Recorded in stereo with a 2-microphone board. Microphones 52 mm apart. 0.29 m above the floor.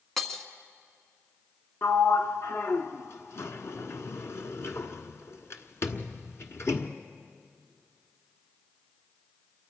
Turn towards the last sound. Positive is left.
turn(degrees=65)  # may be behind; listen again after turning